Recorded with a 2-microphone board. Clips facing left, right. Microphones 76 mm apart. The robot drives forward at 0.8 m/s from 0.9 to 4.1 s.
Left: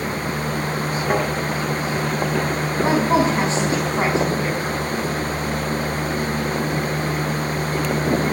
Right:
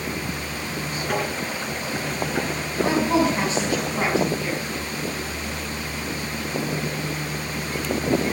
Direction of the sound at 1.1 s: 40° left (ahead or behind).